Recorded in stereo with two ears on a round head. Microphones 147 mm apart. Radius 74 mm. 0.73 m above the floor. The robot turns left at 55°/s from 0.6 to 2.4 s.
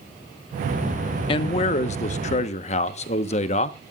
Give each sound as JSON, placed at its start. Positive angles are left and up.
{"t": 1.3, "sound": "a man speaking", "azimuth_deg": 130, "distance_m": 1.0}